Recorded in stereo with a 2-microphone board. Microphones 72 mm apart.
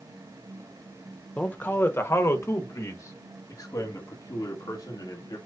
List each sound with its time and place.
1.4 s a man speaking: 20° left (ahead or behind), 0.8 m; by 5.4 s 65° left (ahead or behind), 2.5 m